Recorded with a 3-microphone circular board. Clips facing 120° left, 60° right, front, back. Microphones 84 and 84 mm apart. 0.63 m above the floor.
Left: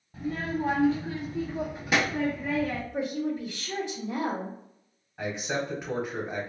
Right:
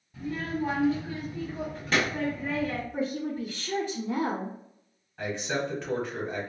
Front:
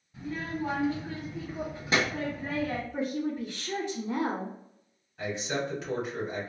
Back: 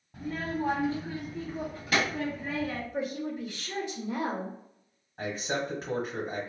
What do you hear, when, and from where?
0.1 s a child speaking: 165° left, 0.8 m; by 2.8 s 25° left, 0.9 m
2.9 s a woman speaking: 20° right, 1.5 m
5.2 s a man speaking: 170° right, 1.1 m